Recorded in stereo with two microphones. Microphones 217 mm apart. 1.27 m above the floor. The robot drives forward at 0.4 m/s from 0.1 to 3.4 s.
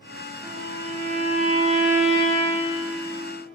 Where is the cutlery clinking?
I don't hear cutlery clinking.